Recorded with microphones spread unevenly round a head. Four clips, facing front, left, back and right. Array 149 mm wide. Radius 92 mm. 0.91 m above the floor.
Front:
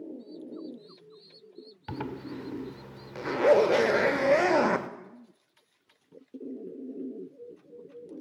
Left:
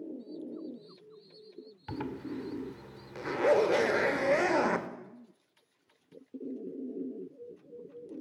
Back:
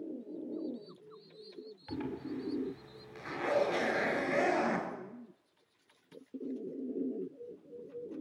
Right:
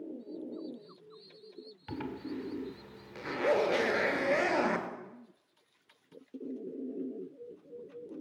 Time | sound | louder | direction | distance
1.9 | a zipper | left 1 dB, front 2 dB | 10° right | 1.8 m